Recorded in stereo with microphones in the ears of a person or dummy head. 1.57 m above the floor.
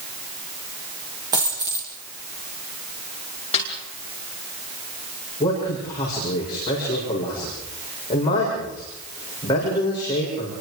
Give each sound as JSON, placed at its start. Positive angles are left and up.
{"t": 1.3, "sound": "a dropped coin", "side_deg": -25, "distance_m": 6.5}
{"t": 3.5, "sound": "a snare drum", "side_deg": 30, "distance_m": 5.0}
{"t": 5.4, "sound": "a man speaking", "side_deg": 25, "distance_m": 8.0}